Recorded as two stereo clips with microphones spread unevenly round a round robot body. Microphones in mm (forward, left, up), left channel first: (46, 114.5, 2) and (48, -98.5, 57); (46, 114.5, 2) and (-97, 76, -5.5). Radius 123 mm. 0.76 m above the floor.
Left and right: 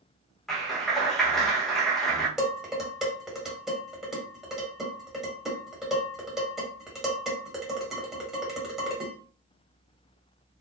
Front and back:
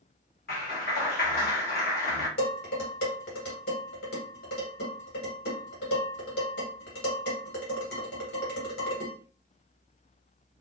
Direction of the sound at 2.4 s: Straight ahead.